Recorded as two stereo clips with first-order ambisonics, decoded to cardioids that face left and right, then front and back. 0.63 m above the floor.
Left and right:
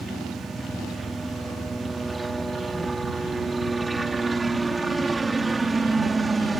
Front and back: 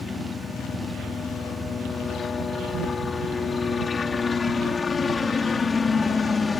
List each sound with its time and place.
0.0 s a helicopter: 20° right; by 6.6 s 30° right